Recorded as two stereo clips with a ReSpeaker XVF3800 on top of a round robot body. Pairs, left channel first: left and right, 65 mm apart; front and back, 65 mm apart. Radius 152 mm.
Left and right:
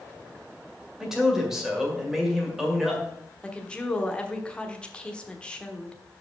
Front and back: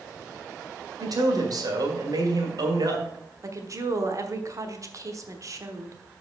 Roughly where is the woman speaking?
Behind.